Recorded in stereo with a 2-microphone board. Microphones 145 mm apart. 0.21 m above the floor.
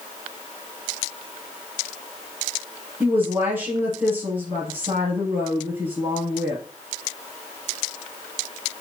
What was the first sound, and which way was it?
A woman speaking, 15° right (ahead or behind).